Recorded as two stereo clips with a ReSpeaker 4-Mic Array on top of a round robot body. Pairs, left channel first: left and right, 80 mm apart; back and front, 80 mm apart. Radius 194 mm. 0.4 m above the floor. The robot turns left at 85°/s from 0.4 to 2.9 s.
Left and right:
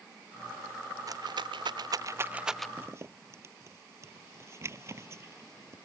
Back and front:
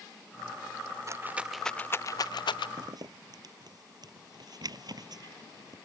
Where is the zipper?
25° right; by 5.8 s 35° right.